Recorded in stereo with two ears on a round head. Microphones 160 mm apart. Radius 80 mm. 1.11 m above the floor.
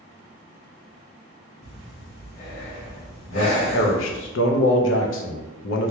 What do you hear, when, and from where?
1.6 s breathing: 80° left, 1.7 m
3.3 s a man speaking: 70° left (ahead or behind), 0.5 m